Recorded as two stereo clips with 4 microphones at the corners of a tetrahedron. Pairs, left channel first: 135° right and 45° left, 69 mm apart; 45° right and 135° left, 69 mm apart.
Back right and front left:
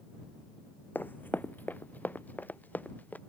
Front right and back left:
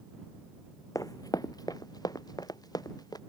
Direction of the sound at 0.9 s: 75° right.